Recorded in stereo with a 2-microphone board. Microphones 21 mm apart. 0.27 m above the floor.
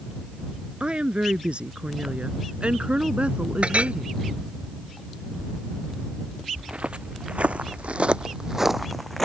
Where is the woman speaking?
55° right (ahead or behind); by 4.2 s 65° right (ahead or behind).